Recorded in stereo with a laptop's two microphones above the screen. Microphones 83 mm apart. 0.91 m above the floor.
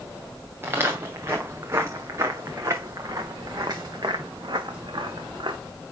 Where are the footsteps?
25° right (ahead or behind), 5 m; by 5.6 s 60° right (ahead or behind), 3.5 m.